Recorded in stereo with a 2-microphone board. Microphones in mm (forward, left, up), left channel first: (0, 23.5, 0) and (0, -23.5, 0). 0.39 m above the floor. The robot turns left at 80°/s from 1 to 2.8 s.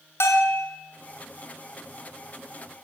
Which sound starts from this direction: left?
A bell, at 0.2 s.